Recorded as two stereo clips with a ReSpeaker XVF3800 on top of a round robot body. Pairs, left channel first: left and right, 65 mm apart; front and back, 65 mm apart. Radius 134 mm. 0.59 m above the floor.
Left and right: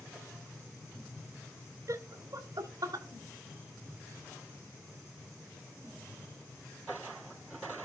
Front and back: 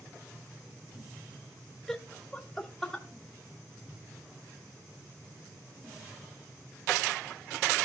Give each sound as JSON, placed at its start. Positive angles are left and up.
{"t": 1.9, "sound": "laughter", "azimuth_deg": -80, "distance_m": 1.0}